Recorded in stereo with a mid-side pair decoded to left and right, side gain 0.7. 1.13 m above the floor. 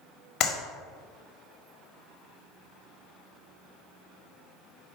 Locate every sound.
0.4 s a clap: 50° left, 1.7 m